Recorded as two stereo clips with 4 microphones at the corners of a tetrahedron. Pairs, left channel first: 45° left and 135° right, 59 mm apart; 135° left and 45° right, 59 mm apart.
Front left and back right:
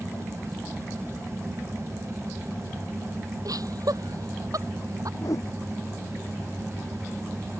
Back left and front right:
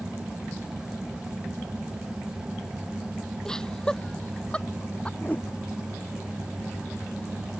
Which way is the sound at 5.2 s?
70° left.